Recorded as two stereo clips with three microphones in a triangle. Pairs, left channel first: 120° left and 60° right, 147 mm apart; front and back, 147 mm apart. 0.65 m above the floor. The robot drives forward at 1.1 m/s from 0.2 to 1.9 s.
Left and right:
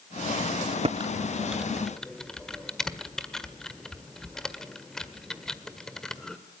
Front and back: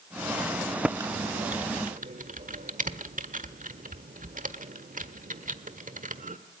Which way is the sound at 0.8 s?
95° right.